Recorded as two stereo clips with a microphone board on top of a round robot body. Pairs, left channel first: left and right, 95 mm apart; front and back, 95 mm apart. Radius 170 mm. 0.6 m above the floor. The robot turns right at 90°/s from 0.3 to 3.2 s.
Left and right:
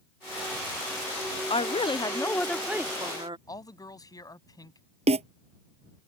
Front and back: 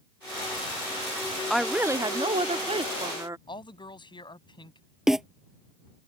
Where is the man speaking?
40° left.